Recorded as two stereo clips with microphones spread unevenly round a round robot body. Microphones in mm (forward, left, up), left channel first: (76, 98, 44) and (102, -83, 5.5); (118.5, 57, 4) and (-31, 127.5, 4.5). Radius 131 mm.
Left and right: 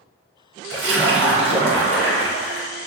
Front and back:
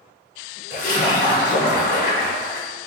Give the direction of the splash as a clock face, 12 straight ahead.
3 o'clock.